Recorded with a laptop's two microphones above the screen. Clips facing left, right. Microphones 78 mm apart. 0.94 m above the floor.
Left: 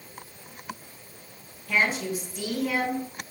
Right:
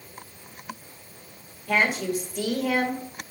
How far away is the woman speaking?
About 1.9 m.